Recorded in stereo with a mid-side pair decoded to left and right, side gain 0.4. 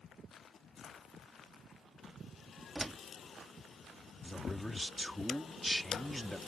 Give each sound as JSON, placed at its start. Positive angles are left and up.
{"t": 2.8, "sound": "a door slam", "azimuth_deg": -15}
{"t": 4.2, "sound": "a man speaking", "azimuth_deg": 0}